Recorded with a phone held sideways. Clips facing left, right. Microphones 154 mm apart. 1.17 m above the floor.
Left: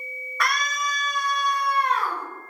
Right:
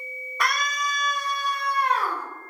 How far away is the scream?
About 1.2 m.